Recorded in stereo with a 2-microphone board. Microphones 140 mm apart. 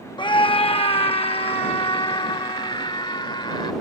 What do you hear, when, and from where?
0.2 s a scream: 35° left (ahead or behind)